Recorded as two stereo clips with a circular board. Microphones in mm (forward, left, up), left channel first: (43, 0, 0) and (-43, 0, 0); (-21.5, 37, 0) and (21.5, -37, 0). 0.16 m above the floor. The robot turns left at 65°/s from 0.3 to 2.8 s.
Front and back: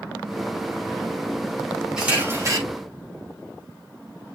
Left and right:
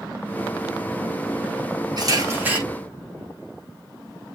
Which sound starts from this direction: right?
A camera shutter, at 2.0 s.